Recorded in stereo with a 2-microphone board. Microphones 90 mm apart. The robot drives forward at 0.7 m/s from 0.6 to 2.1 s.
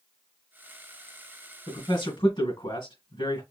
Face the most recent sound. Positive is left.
turn(degrees=60)  # may be behind; listen again after turning